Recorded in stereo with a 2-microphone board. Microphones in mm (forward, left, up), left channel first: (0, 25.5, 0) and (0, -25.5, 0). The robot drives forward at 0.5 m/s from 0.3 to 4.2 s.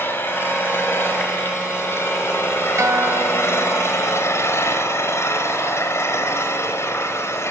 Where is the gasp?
No gasp in this recording.